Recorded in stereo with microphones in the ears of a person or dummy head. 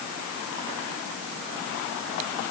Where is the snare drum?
No snare drum in this recording.